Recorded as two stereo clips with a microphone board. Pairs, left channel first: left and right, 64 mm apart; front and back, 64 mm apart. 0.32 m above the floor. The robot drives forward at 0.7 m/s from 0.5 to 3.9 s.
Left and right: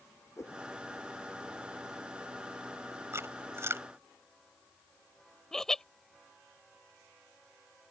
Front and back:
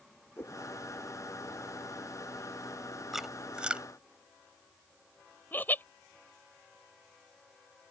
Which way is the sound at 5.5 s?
15° left.